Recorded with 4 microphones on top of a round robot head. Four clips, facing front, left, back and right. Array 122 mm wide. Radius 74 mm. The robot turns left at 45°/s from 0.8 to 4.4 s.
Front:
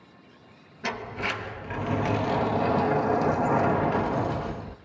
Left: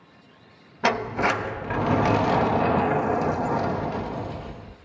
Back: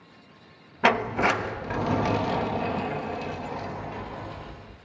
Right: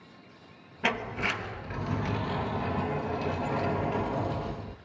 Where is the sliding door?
155° left, 0.9 m; by 4.8 s 5° right, 0.9 m.